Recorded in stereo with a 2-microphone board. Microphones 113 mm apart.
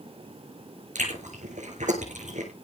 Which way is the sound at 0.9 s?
85° right.